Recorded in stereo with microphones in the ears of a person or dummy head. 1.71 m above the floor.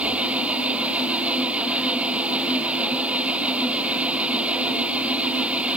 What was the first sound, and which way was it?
An engine running, 10° right (ahead or behind).